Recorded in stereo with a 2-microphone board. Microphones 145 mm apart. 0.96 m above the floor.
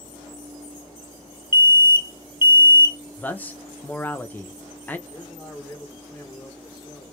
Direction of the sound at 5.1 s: 5° left (ahead or behind).